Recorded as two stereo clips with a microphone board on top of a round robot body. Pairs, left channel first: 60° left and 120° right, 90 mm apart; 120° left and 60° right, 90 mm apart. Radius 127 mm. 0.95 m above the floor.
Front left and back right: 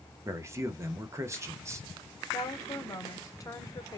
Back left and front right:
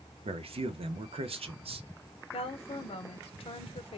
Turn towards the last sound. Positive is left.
turn(degrees=115)